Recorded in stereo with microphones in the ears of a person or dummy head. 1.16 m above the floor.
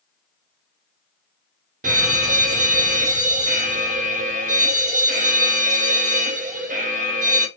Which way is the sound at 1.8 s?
40° right (ahead or behind).